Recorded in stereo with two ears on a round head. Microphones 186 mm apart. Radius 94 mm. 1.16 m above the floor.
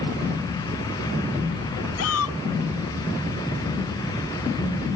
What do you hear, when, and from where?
2.0 s a shout: 80° left